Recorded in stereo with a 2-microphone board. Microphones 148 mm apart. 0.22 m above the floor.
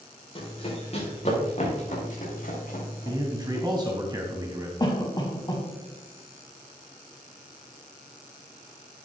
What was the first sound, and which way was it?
Running footsteps, 40° left (ahead or behind).